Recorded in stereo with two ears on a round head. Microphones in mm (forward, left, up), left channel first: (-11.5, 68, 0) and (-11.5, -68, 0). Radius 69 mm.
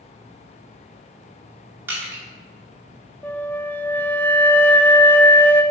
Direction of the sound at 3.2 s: 15° left (ahead or behind).